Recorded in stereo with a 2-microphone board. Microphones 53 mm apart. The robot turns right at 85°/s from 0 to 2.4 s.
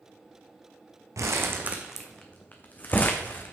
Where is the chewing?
No chewing in this recording.